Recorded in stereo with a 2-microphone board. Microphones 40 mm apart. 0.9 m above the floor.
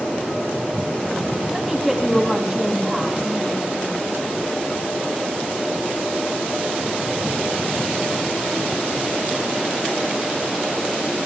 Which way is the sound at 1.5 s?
5° right (ahead or behind).